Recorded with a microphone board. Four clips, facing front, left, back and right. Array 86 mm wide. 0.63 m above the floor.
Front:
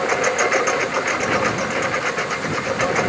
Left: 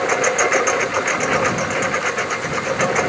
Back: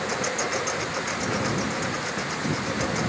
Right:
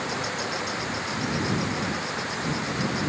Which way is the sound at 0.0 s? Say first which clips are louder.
Left 12 dB, front 9 dB; 55° left.